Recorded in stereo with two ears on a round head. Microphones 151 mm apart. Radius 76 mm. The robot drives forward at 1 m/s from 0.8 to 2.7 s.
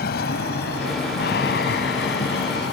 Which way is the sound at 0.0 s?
60° left (ahead or behind).